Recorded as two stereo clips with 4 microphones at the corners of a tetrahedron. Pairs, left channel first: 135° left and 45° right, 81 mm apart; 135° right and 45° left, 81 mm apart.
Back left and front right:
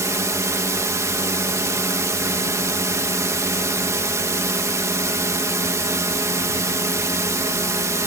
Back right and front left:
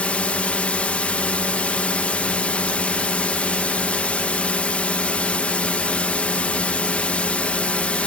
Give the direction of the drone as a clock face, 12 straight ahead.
2 o'clock.